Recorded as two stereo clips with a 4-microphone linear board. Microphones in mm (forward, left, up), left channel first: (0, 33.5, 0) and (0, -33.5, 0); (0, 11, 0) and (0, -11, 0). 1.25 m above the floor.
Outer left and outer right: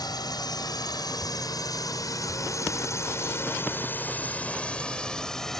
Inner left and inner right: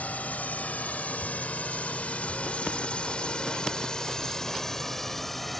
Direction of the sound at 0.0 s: 80° left.